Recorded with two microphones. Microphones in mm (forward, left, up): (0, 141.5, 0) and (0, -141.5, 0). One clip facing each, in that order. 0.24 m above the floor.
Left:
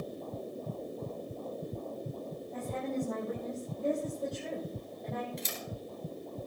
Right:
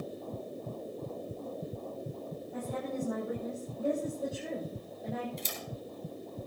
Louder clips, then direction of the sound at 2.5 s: Left 1 dB; 10° right (ahead or behind).